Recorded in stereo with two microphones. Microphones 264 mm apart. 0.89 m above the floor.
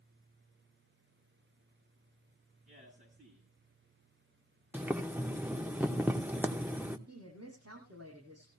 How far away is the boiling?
About 0.8 m.